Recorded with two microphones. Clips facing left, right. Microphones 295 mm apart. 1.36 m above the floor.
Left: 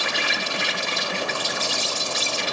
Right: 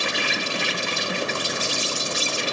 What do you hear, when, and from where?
0.0 s an insect: 40° right (ahead or behind), 1.2 m